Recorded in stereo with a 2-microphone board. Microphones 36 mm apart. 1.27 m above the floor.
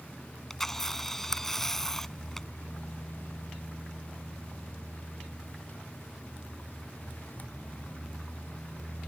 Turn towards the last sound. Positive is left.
turn(degrees=10)  # may be behind; listen again after turning